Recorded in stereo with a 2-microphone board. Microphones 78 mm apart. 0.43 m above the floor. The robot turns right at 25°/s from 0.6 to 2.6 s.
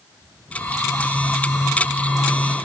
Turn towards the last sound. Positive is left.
No sound to turn to.